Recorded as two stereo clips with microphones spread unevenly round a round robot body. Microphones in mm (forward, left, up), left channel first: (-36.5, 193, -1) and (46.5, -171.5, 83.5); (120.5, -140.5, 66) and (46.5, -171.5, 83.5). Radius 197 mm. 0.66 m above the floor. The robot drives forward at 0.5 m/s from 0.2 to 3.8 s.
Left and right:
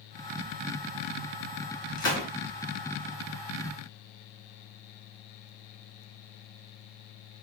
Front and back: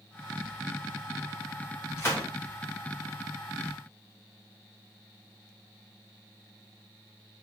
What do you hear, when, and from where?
2.0 s a gunshot: 40° left, 1.3 m; by 2.3 s 50° left, 1.2 m